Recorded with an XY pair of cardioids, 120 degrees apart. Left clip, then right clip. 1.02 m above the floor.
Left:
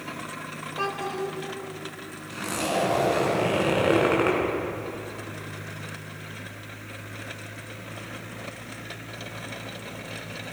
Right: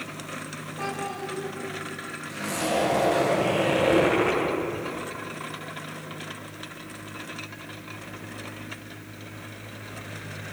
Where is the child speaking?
65° left, 3.5 m.